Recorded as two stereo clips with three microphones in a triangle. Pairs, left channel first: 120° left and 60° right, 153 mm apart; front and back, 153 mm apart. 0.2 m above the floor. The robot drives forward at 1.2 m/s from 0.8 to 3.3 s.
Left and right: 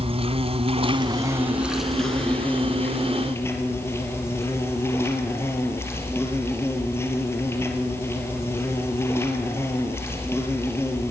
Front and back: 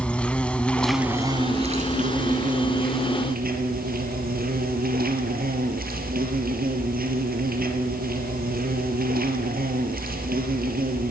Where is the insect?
80° right, 1.0 m; by 11.1 s 165° right, 3 m.